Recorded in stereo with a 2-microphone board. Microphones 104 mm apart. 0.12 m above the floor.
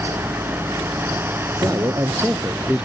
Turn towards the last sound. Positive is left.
turn(degrees=-10)  # may be behind; listen again after turning